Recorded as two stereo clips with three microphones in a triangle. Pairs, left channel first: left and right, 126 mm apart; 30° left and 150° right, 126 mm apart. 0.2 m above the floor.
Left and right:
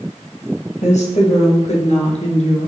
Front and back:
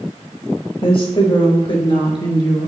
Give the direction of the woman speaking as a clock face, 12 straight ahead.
10 o'clock.